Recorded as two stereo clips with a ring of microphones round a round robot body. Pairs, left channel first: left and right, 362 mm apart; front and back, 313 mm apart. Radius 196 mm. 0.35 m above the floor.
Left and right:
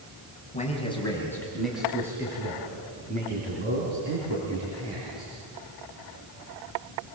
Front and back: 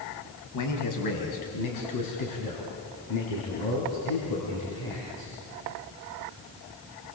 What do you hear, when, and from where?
0.5 s a man speaking: 20° left, 3.5 m; by 5.3 s 35° right, 6.5 m